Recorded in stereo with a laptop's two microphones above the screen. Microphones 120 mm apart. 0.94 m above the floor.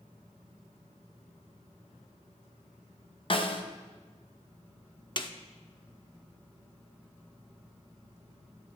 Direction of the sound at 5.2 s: 40° left (ahead or behind).